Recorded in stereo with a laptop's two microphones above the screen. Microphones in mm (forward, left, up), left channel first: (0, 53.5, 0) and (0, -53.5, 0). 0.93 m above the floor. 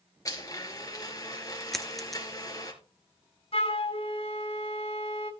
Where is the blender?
35° left (ahead or behind), 3 m.